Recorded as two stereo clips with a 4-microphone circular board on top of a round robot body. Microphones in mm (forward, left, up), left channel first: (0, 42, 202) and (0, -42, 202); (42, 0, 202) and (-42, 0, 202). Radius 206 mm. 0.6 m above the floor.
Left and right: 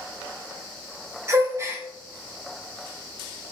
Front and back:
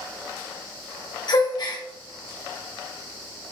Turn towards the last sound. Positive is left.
turn(degrees=-35)